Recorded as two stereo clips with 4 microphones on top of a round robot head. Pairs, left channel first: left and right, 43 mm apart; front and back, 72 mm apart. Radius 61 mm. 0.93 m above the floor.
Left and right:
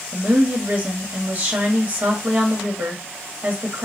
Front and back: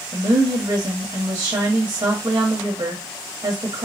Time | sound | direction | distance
0.1 | a woman speaking | 135° right | 1.4 m